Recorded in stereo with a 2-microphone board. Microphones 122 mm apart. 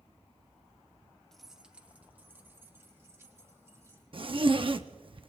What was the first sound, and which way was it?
Keys jangling, 5° left (ahead or behind).